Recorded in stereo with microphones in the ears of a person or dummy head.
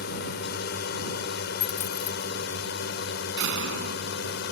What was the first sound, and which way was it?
A drone, 60° left (ahead or behind).